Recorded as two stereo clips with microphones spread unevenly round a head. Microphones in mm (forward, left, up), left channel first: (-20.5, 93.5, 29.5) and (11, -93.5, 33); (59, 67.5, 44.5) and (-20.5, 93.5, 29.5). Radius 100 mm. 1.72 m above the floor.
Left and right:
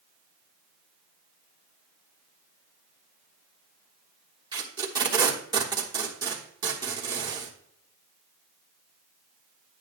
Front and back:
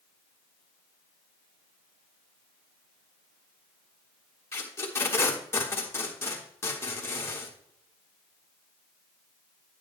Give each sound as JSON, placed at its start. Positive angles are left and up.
{"t": 4.5, "sound": "tape being pulled", "azimuth_deg": -25, "distance_m": 1.1}